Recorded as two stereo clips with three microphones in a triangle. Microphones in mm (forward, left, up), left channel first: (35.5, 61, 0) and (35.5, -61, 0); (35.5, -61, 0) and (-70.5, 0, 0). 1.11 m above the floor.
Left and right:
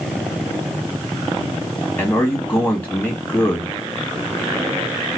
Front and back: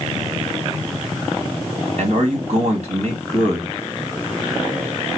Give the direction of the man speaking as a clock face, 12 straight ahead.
6 o'clock.